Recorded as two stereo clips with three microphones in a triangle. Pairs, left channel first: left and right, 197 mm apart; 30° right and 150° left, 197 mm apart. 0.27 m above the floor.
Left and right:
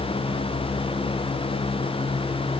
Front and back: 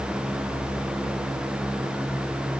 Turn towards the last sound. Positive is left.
No sound to turn to.